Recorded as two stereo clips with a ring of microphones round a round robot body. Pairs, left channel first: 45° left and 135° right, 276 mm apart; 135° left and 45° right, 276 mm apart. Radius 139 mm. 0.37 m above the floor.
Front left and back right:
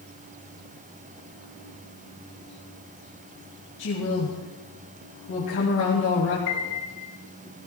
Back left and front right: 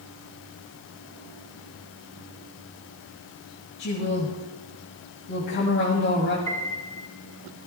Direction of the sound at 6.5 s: 55° left.